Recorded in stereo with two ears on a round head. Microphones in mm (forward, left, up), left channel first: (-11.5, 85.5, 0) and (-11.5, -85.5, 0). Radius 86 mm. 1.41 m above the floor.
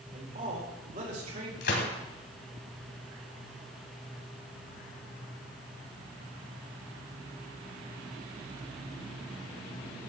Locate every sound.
0.1 s a man speaking: 40° right (ahead or behind), 4 m
1.6 s a gunshot: 60° left (ahead or behind), 2.5 m